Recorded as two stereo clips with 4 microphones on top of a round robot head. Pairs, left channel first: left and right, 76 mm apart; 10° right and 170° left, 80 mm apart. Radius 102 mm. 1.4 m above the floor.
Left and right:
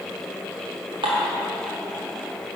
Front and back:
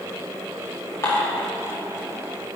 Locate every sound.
1.0 s dishes clattering: 70° right, 1.9 m